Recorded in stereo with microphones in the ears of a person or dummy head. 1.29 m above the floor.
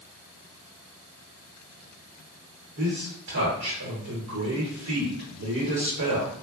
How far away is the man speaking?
About 1.0 m.